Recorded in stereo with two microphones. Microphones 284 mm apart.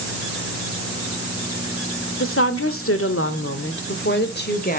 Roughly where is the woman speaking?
Left.